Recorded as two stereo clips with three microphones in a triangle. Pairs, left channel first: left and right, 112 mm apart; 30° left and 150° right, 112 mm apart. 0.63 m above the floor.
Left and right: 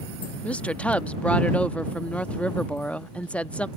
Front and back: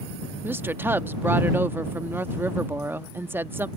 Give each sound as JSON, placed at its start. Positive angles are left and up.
{"t": 0.4, "sound": "a woman speaking", "azimuth_deg": 160}